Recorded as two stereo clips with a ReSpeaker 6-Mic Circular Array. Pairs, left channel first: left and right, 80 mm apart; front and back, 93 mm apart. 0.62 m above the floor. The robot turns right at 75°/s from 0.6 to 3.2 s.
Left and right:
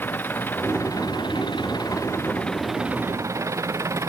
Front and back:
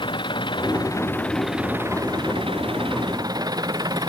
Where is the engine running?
25° left; by 4.1 s 140° right.